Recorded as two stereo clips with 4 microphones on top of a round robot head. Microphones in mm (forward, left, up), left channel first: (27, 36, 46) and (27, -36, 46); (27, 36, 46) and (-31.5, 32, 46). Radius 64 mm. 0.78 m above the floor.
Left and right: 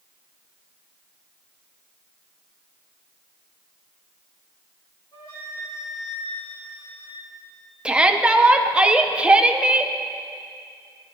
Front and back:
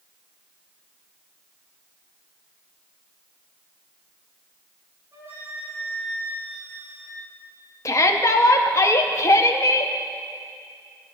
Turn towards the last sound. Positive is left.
turn(degrees=-15)